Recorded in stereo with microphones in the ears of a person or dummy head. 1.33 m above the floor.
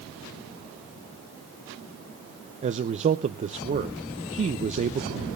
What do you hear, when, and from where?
2.6 s a man speaking: 40° right (ahead or behind), 0.6 m